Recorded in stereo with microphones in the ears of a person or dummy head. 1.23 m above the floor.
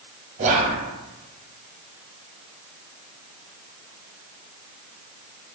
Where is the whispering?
35° right (ahead or behind), 0.7 m.